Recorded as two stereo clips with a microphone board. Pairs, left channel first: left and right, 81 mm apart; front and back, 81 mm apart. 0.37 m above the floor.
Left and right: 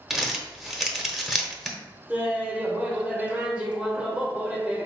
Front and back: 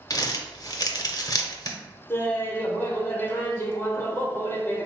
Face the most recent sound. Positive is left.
turn(degrees=-30)